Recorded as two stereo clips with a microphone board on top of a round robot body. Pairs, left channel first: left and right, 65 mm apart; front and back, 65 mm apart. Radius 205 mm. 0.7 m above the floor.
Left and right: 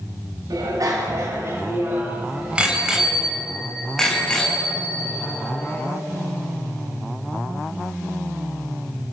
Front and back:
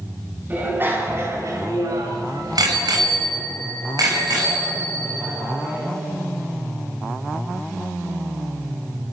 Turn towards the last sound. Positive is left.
turn(degrees=155)